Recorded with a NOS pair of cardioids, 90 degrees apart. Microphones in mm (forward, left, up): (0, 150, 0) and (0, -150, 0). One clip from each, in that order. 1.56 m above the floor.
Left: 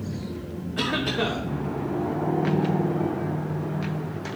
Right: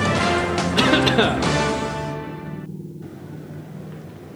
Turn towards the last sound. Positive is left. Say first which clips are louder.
# right 8 dB
turn(degrees=-60)